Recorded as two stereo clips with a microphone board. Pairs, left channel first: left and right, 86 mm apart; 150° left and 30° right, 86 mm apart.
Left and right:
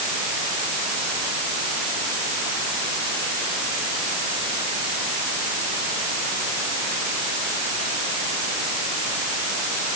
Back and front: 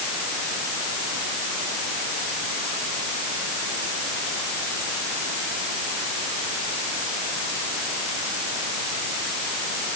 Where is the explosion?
No explosion in this recording.